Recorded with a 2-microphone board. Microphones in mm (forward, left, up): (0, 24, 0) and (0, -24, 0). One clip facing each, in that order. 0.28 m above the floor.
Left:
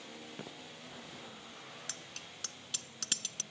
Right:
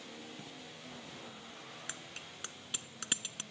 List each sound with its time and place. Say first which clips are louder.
0.3 s footsteps: left 2 dB; 40° left (ahead or behind)
1.9 s a bicycle bell: right 2 dB; 20° right (ahead or behind)